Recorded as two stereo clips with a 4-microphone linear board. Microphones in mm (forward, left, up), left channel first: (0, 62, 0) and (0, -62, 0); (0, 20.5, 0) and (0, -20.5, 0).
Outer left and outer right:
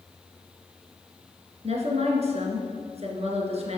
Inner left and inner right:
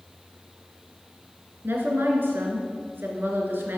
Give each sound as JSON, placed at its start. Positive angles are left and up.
{"t": 1.6, "sound": "a woman speaking", "side_deg": -60, "distance_m": 2.5}